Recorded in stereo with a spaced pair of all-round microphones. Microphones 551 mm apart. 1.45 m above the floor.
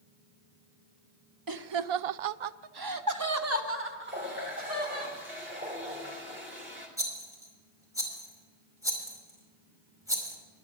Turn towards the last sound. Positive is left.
turn(degrees=-5)  # may be behind; listen again after turning